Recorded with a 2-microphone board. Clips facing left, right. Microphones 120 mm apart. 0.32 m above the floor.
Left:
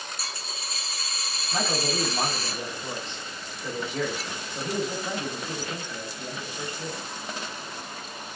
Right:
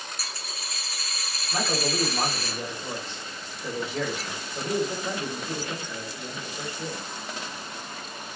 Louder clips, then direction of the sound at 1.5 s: Even; 5° right (ahead or behind).